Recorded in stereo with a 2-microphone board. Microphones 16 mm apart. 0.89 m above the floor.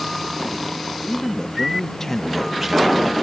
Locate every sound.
1.0 s a man speaking: 55° left (ahead or behind); by 3.1 s 30° right (ahead or behind)